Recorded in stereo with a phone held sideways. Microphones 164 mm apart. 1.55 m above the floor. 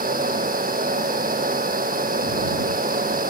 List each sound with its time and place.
0.0 s a fan: 60° right (ahead or behind)